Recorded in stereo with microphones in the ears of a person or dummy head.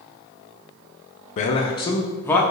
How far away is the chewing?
No chewing in this recording.